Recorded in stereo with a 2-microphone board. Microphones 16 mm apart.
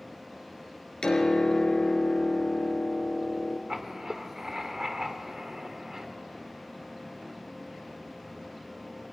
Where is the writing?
35° right (ahead or behind), 1.7 m.